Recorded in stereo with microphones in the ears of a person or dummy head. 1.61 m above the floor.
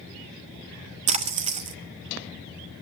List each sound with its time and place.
1.1 s a splash: 30° right (ahead or behind), 0.6 m